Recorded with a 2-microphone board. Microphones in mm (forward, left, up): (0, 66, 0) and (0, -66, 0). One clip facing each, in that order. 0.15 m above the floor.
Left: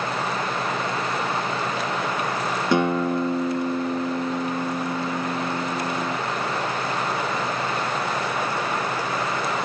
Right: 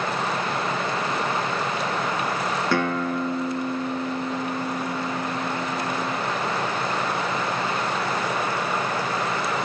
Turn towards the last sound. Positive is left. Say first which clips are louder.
# left 5 dB
turn(degrees=20)  # may be behind; listen again after turning